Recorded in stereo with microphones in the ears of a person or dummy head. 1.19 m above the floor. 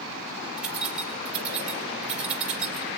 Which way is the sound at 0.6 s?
Centre (ahead or behind).